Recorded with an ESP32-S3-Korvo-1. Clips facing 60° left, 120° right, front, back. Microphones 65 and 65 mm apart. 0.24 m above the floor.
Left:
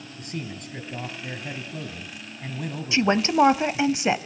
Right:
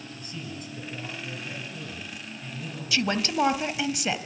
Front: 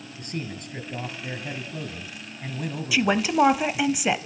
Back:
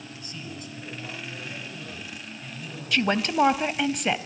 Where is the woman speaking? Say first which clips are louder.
Left 6 dB, front 2 dB; 75° left, 1.0 m.